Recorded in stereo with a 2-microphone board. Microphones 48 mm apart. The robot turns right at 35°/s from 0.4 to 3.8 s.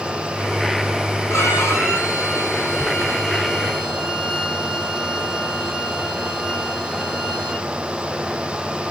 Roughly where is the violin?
Left.